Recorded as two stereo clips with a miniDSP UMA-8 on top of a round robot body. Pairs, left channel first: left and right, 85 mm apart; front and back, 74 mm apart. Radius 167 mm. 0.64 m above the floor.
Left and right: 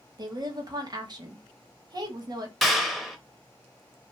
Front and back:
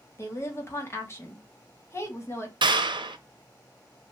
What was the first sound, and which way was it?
A woman speaking, 55° right.